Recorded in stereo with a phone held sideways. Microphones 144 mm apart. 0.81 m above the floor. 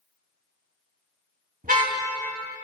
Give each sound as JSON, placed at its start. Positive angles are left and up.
{"t": 1.6, "sound": "a car horn", "side_deg": -70, "distance_m": 3.0}